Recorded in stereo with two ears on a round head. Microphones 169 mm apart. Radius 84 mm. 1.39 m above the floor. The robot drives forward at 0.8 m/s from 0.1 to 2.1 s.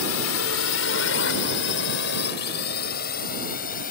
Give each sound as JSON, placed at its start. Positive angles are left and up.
{"t": 0.0, "sound": "a drone", "side_deg": 85}